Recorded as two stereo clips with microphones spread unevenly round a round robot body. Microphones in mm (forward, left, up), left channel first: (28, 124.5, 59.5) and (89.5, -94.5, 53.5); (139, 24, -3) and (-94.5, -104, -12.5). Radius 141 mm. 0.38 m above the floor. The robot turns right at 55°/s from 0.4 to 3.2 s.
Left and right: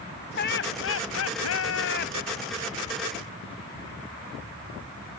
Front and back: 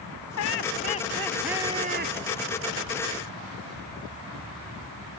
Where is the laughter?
65° left; by 2.1 s 160° left.